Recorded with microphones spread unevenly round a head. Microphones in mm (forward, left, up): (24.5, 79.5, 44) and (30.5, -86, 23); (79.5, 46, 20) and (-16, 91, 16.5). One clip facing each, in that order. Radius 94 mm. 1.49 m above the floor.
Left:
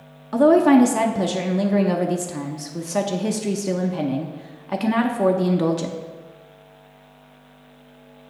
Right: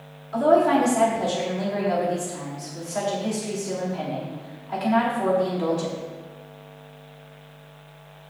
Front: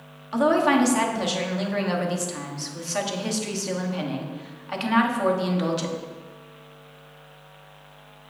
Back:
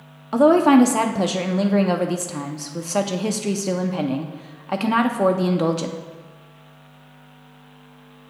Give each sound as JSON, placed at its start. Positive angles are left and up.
{"t": 0.3, "sound": "a woman speaking", "azimuth_deg": 110, "distance_m": 0.7}